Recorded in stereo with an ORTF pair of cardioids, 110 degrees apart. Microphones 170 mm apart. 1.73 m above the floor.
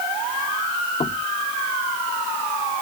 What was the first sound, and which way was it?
Knocking, 30° left.